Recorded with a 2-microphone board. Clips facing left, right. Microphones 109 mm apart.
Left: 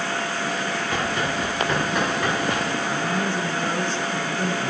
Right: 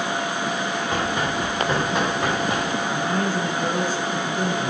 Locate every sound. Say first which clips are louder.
0.9 s running footsteps: right 1 dB; 25° right (ahead or behind), 8 m; by 2.6 s 20° right (ahead or behind), 9 m
2.8 s a man speaking: right 1 dB; 45° right (ahead or behind), 3.5 m